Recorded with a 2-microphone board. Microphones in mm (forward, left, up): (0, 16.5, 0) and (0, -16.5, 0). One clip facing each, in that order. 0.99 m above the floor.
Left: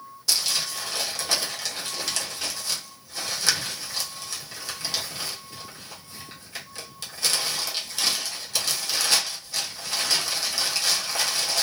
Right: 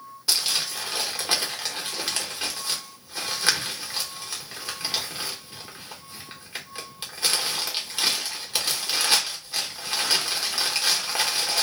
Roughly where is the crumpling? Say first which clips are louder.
Right 1 dB; right.